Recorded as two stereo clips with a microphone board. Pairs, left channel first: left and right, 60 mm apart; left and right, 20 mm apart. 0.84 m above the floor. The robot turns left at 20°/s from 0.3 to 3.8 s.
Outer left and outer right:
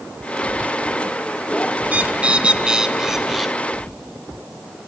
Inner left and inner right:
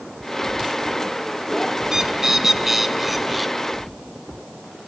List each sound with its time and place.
1.8 s a bird: 140° right, 0.7 m; by 3.5 s 175° right, 0.7 m